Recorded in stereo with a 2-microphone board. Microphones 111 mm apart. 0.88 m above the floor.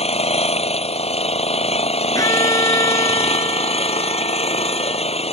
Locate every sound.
0.0 s an engine running: 60° left (ahead or behind)
2.1 s a violin: 30° left (ahead or behind)